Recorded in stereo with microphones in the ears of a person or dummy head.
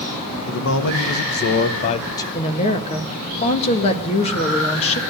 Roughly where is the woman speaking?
Left.